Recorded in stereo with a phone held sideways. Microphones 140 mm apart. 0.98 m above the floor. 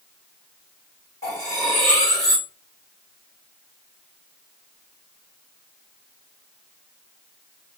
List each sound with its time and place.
1.2 s cutlery clinking: 25° left (ahead or behind), 3.5 m